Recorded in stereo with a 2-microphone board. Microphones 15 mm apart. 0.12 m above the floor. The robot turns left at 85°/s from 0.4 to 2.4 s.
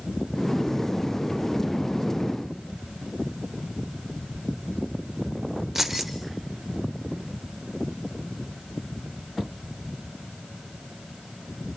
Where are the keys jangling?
20° right (ahead or behind), 1.8 m.